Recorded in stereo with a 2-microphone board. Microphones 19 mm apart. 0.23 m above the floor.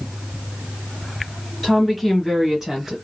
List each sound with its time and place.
1.6 s a woman speaking: 5° right (ahead or behind), 1.4 m; by 3.0 s 35° right (ahead or behind), 1.3 m